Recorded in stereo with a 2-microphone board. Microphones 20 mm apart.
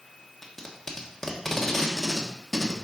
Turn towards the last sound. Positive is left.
turn(degrees=15)  # may be behind; listen again after turning